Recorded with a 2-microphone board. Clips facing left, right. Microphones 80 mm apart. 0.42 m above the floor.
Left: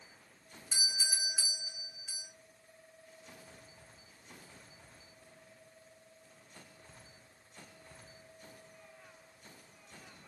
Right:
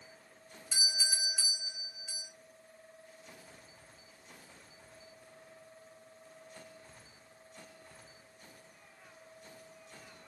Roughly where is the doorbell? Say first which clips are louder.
Right 1 dB; centre.